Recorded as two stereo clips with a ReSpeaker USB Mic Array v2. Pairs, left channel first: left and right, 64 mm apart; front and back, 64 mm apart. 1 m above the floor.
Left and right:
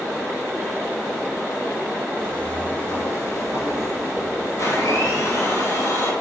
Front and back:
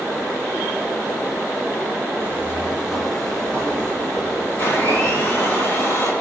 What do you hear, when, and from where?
2.2 s footsteps: 160° left, 1.1 m; by 5.6 s 50° left, 3.5 m
4.6 s a blender: 55° left, 1.7 m